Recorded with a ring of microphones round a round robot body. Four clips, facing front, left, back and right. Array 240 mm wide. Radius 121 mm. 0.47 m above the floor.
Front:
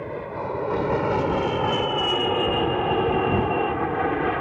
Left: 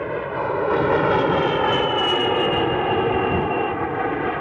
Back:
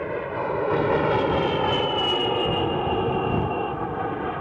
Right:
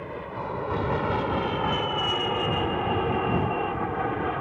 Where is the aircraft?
115° left; by 4.4 s 50° left.